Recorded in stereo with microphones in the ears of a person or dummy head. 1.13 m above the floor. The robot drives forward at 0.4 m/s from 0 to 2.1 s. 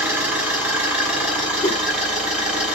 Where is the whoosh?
15° left (ahead or behind), 0.5 m; by 1.8 s 20° left (ahead or behind), 0.5 m.